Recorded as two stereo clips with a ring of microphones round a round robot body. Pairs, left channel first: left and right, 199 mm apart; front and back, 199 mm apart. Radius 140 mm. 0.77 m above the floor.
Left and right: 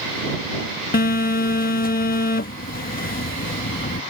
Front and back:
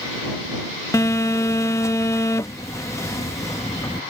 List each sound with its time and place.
0.9 s a phone buzzing: 70° left